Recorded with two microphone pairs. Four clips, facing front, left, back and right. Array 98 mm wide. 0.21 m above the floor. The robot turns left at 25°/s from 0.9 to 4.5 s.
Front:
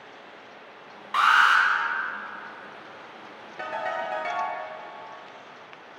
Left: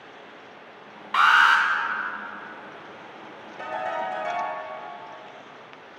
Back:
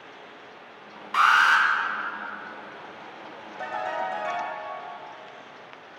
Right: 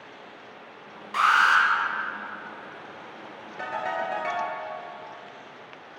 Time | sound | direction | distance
1.1 | an alarm | 75° left | 1.3 m
3.6 | a ringtone | 35° right | 2.5 m